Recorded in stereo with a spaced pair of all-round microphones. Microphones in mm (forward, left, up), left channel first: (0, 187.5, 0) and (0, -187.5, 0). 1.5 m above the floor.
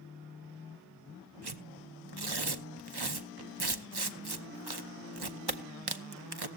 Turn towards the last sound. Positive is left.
turn(degrees=-85)